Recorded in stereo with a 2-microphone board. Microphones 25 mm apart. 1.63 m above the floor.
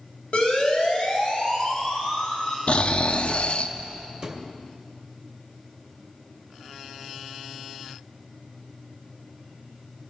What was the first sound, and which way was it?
A siren, 55° left (ahead or behind).